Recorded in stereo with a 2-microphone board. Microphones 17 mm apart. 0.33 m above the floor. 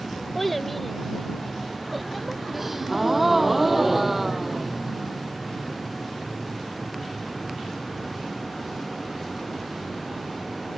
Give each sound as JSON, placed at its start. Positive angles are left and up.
{"t": 0.3, "sound": "a child speaking", "side_deg": 15}
{"t": 2.5, "sound": "a gasp", "side_deg": -15}